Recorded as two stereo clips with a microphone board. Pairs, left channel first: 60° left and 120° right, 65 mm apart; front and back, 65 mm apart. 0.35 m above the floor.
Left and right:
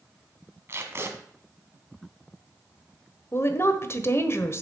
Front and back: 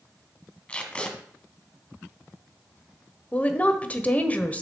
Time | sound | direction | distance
0.7 | tape being pulled | 70° right | 1.6 m
3.3 | a woman speaking | 55° left | 1.2 m